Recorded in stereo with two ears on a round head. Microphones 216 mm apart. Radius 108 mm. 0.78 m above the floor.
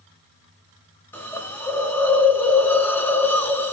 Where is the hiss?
10° left (ahead or behind), 1.2 m.